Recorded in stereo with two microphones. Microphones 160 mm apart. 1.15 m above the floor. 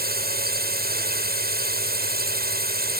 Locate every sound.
0.0 s a drone: 75° right (ahead or behind)